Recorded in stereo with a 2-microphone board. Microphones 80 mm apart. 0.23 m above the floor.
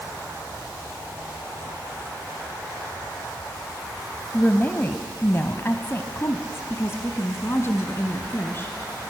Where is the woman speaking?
25° left (ahead or behind), 1.0 m; by 8.7 s 30° left (ahead or behind), 2.5 m.